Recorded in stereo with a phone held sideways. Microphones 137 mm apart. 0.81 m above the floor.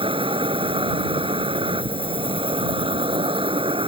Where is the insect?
40° right (ahead or behind).